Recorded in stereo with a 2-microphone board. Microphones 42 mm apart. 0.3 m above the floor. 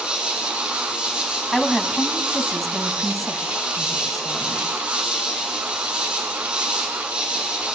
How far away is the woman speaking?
About 1.7 m.